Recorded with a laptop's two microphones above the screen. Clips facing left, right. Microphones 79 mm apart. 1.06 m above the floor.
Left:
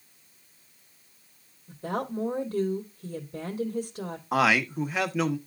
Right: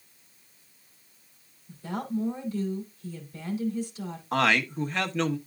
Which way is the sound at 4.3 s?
5° left (ahead or behind).